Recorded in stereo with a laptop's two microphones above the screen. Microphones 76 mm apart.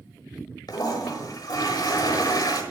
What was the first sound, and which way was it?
A toilet flushing, 60° left (ahead or behind).